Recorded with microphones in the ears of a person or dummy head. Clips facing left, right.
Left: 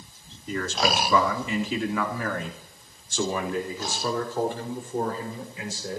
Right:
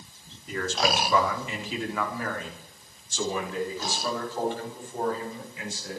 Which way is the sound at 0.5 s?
85° left.